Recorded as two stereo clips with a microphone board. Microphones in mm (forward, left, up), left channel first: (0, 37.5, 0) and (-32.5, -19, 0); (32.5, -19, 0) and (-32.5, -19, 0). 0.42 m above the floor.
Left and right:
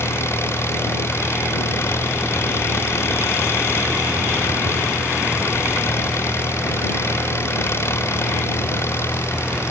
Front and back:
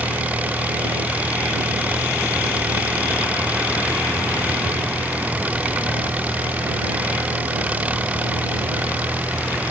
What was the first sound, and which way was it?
An engine running, 110° left.